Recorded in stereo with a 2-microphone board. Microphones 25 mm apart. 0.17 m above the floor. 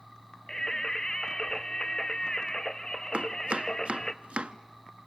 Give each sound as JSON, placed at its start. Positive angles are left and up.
{"t": 0.5, "sound": "singing", "side_deg": 30, "distance_m": 0.6}
{"t": 3.1, "sound": "chopping", "side_deg": -55, "distance_m": 0.7}